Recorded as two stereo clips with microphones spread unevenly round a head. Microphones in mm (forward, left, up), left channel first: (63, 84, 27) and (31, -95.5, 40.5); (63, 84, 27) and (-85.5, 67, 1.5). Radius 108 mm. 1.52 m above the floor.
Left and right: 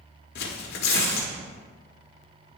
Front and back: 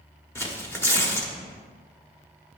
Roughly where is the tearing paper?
Ahead left.